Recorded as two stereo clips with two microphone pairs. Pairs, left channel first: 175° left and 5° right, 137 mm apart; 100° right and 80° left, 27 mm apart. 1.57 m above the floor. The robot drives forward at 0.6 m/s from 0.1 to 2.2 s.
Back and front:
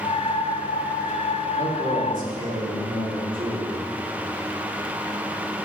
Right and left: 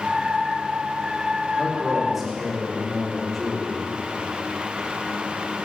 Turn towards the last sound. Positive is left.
turn(degrees=5)